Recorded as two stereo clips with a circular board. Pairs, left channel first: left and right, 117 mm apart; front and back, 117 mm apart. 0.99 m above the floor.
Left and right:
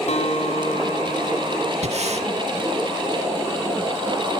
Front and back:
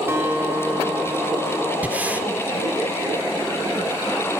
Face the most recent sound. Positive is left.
turn(degrees=-105)